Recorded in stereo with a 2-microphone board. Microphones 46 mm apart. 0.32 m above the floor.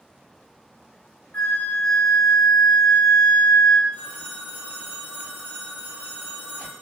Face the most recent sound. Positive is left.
turn(degrees=-65)  # may be behind; listen again after turning